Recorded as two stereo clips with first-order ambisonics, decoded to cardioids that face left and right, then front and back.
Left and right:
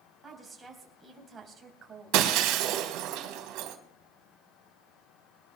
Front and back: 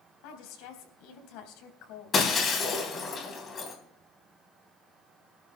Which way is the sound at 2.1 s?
65° right.